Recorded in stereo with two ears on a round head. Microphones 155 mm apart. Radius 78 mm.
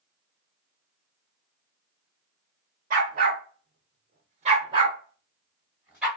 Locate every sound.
2.9 s a dog barking: 45° right (ahead or behind), 0.9 m; by 6.1 s 10° right (ahead or behind), 1.3 m